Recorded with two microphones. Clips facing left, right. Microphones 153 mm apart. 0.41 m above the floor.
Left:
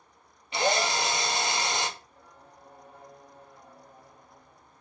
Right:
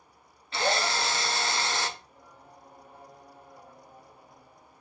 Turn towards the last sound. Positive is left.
turn(degrees=-10)  # may be behind; listen again after turning